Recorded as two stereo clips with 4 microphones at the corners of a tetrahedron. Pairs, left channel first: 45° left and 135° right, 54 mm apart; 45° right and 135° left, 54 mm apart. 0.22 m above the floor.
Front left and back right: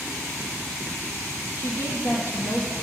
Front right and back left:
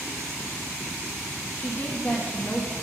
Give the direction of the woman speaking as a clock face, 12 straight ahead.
11 o'clock.